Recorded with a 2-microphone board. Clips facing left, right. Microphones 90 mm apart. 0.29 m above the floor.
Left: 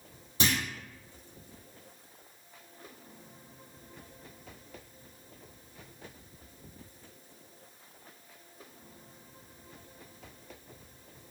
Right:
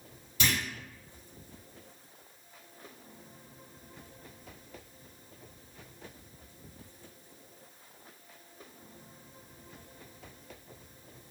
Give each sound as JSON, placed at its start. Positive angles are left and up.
{"t": 0.4, "sound": "a clunk", "side_deg": 35, "distance_m": 1.1}